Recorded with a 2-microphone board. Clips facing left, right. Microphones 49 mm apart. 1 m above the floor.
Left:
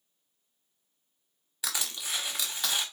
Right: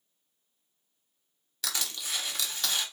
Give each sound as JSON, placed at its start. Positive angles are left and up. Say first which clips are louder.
{"t": 1.6, "sound": "crushing", "louder": "even", "side_deg": 10, "distance_m": 1.2}